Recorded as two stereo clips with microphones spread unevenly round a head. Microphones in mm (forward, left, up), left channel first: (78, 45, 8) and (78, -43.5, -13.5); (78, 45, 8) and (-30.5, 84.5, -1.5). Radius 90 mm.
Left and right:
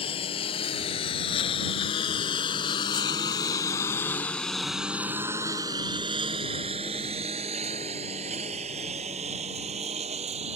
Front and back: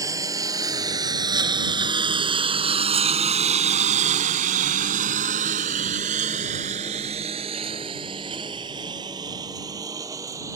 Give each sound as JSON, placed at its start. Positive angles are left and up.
{"t": 0.0, "sound": "a lawn mower", "azimuth_deg": 100}